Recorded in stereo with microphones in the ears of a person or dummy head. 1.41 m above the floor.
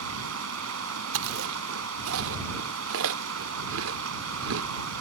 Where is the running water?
80° right.